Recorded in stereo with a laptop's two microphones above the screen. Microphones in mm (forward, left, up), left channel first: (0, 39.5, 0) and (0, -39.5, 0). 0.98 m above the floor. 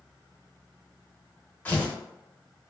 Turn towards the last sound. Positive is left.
turn(degrees=20)  # may be behind; listen again after turning